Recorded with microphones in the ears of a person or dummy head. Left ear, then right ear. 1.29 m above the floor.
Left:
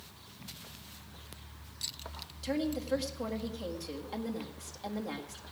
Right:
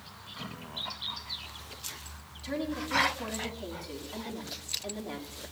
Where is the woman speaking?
75° left (ahead or behind), 1.8 m.